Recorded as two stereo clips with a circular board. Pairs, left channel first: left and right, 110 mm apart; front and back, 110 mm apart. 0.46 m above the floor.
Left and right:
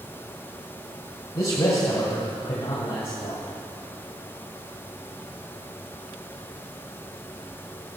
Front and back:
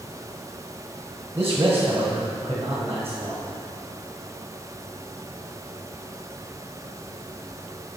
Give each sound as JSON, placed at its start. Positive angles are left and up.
{"t": 1.4, "sound": "a man speaking", "azimuth_deg": 115, "distance_m": 2.0}